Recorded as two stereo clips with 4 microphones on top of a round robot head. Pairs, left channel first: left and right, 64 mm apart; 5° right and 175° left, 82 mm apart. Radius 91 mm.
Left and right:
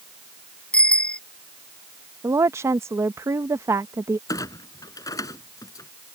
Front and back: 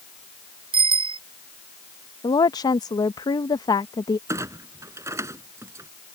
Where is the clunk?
120° left.